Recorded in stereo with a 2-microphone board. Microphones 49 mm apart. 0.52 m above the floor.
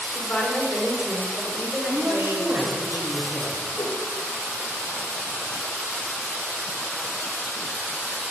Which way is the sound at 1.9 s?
55° right (ahead or behind).